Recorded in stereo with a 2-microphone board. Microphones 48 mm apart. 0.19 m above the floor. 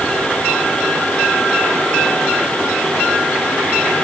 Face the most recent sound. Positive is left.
No sound to turn to.